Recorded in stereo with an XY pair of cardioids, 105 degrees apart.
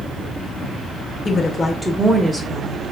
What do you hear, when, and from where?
1.2 s a woman speaking: 40° left, 0.6 m; by 2.9 s 45° right, 0.9 m